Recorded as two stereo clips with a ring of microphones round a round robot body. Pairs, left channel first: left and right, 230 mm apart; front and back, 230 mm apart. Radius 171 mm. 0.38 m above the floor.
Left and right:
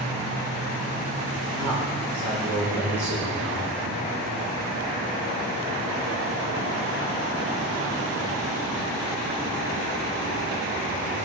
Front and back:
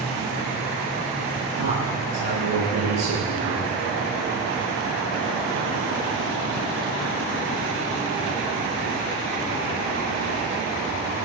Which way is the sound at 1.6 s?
175° right.